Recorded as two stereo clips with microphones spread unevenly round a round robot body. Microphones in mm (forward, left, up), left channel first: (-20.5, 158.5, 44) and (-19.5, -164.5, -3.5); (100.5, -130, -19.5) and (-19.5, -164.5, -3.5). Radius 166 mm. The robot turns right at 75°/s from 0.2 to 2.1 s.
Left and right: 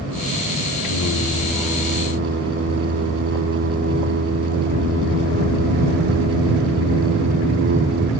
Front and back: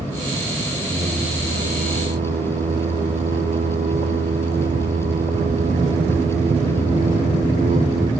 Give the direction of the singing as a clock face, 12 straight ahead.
8 o'clock.